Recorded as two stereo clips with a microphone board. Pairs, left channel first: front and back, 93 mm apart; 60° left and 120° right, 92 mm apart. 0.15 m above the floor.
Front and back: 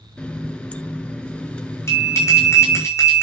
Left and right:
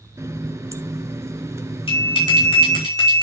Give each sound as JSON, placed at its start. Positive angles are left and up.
{"t": 0.2, "sound": "a running tap", "azimuth_deg": -75, "distance_m": 1.2}
{"t": 1.9, "sound": "a bell", "azimuth_deg": 60, "distance_m": 7.0}